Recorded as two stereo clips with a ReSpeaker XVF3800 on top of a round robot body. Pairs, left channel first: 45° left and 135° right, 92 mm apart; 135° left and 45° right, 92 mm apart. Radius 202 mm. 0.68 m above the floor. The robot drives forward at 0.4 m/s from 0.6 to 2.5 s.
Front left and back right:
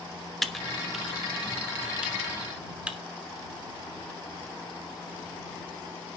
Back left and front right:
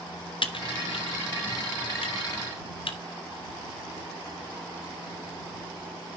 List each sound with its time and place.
0.4 s typing on a keyboard: 135° left, 1.7 m; by 3.0 s 150° left, 2 m